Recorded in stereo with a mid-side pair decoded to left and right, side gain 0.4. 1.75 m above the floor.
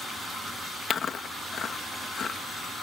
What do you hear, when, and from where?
0.9 s chewing: 55° left